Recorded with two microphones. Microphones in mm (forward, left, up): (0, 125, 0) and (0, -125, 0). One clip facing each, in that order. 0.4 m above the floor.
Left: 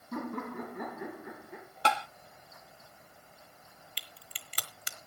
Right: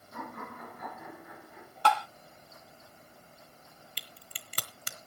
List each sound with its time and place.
0.1 s laughter: 85° left, 8.5 m; by 1.7 s 80° left, 8 m
1.9 s tapping: 20° left (ahead or behind), 0.7 m
4.0 s a crack: 45° right (ahead or behind), 1.2 m